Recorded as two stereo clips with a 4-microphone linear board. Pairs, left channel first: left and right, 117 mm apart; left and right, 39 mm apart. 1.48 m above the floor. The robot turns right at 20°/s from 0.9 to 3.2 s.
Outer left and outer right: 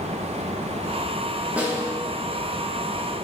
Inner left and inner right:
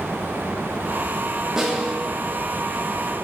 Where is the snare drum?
10° right (ahead or behind), 1.1 m; by 1.9 s 15° right (ahead or behind), 1.1 m.